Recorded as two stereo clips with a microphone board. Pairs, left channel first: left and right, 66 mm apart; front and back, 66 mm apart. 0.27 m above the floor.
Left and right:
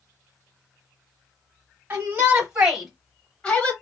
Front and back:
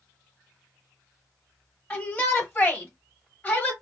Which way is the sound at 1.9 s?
50° right.